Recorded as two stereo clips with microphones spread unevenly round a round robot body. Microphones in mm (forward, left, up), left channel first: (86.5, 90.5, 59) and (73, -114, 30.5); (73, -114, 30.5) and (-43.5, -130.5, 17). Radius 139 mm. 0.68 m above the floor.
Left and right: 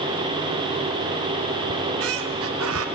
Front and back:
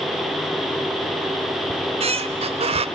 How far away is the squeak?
About 0.7 m.